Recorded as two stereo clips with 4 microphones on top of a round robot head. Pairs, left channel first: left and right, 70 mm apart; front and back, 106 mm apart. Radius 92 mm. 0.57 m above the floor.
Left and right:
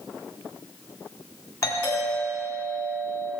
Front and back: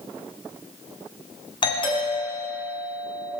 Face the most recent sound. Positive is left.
turn(degrees=40)